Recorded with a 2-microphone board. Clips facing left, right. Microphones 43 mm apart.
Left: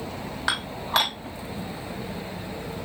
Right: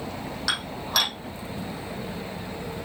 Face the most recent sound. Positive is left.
turn(degrees=30)  # may be behind; listen again after turning